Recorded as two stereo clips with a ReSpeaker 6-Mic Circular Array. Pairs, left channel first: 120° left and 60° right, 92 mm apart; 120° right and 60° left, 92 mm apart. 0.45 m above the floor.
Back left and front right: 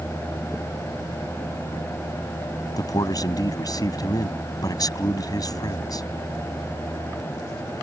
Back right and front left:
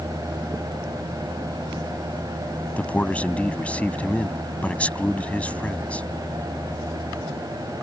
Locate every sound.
2.8 s a man speaking: 165° left